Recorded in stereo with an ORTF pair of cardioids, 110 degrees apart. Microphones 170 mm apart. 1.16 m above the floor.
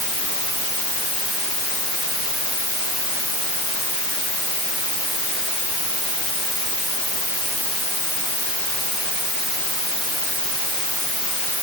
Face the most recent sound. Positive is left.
No sound to turn to.